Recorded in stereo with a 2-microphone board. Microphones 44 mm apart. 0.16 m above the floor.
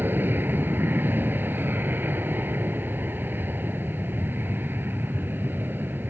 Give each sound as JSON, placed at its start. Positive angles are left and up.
{"t": 0.0, "sound": "an aircraft", "side_deg": -50}